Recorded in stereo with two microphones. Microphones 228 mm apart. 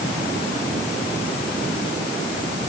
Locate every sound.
Only background noise.